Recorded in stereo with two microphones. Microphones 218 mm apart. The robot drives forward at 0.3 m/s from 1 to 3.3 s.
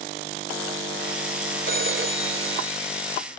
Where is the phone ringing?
65° right (ahead or behind), 1.6 m; by 3.2 s 70° right (ahead or behind), 1.5 m.